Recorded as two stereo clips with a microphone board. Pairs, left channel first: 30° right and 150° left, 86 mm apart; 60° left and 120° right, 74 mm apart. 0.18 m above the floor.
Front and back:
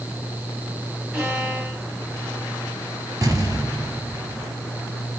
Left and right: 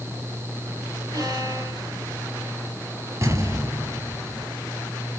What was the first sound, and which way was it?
A violin, 135° right.